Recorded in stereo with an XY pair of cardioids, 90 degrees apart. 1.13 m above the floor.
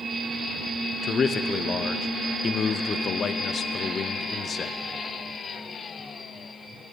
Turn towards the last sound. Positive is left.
turn(degrees=50)